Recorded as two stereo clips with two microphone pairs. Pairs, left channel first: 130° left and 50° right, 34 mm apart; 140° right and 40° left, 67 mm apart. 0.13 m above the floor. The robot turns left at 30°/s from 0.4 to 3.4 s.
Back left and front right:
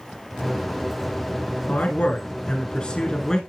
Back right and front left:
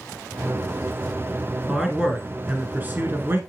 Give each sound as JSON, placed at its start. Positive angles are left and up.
{"t": 1.7, "sound": "a man speaking", "azimuth_deg": 120, "distance_m": 1.3}